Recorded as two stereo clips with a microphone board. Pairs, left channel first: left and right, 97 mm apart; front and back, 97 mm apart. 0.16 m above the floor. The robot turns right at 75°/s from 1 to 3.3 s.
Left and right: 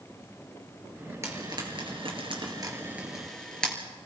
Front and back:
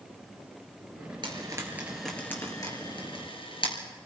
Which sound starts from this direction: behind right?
Frying, at 1.2 s.